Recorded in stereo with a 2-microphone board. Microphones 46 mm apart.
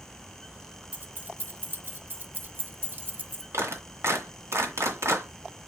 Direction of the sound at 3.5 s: 70° right (ahead or behind).